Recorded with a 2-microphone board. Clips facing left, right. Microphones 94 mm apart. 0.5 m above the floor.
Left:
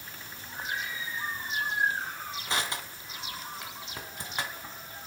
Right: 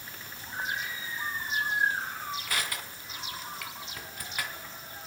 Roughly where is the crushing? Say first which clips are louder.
Left 2 dB; left.